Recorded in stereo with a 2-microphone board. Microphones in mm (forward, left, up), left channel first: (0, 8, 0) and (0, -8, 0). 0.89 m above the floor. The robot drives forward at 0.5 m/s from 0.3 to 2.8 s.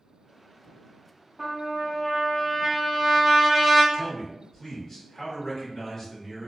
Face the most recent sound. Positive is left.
turn(degrees=25)  # may be behind; listen again after turning